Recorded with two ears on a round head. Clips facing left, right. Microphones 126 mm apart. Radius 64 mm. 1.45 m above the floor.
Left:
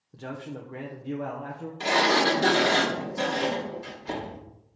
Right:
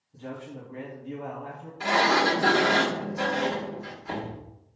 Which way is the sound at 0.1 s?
70° left (ahead or behind).